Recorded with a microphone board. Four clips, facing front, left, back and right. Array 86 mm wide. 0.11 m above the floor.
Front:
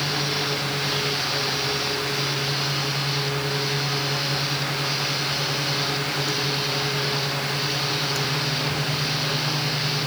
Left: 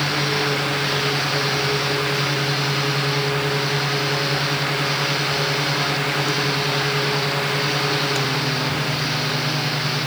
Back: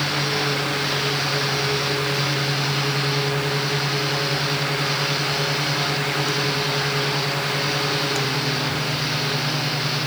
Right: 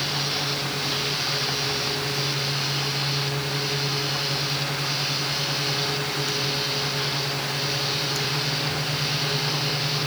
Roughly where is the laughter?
I don't hear laughter.